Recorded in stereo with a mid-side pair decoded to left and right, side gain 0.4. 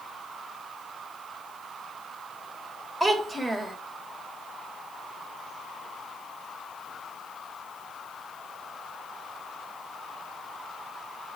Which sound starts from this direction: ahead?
A child speaking, at 3.0 s.